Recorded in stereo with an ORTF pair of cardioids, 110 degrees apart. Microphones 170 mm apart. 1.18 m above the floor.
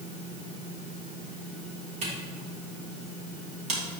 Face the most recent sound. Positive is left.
turn(degrees=-40)